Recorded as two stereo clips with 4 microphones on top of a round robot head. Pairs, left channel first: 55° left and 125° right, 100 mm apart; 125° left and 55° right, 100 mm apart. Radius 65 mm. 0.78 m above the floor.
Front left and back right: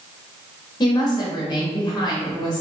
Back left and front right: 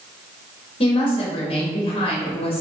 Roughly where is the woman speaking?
Left.